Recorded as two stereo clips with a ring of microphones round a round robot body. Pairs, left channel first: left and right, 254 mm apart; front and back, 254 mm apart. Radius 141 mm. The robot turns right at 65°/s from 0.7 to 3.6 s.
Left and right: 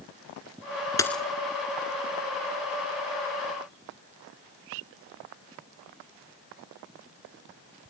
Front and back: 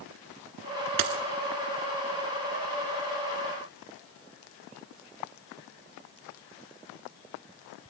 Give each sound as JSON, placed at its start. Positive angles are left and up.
{"t": 1.0, "sound": "a dropped coin", "azimuth_deg": 165, "distance_m": 1.4}